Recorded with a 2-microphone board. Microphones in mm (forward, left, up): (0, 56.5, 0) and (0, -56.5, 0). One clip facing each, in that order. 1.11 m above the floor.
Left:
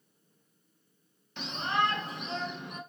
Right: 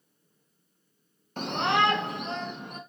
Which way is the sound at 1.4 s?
45° right (ahead or behind).